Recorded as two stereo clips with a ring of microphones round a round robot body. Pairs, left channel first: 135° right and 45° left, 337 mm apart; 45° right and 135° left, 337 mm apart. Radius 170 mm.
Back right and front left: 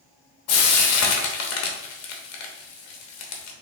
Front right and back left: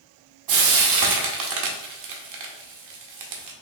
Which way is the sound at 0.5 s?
175° left.